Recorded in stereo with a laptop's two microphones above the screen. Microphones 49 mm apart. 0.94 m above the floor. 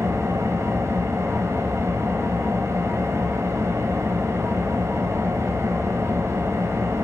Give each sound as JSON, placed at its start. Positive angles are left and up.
{"t": 0.0, "sound": "an engine running", "side_deg": -80, "distance_m": 2.5}